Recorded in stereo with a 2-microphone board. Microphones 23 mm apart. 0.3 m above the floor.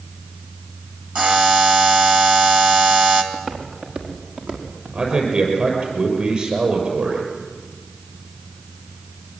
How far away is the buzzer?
About 2 m.